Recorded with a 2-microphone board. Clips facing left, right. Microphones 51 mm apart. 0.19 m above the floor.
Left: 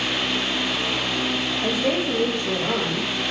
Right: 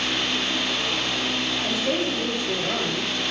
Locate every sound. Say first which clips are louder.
1.6 s a woman speaking: left 3 dB; 75° left (ahead or behind), 10 m